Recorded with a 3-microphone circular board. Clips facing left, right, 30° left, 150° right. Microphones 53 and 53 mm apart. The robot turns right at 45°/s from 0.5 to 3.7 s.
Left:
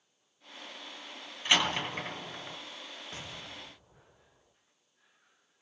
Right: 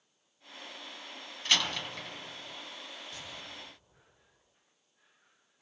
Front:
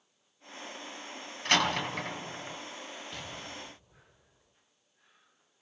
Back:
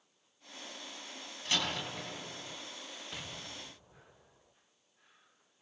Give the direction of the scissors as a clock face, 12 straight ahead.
No scissors in this recording.